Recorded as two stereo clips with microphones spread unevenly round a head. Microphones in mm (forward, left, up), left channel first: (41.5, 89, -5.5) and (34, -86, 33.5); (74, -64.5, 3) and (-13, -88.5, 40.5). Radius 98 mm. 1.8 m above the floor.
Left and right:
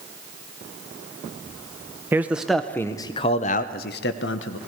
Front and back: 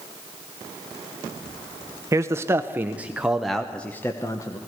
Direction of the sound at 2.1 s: 160° right.